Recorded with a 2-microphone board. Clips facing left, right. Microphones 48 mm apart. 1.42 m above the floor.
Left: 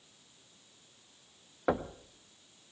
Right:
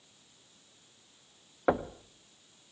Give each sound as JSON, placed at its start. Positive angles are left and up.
{"t": 1.7, "sound": "knocking", "side_deg": -10, "distance_m": 0.5}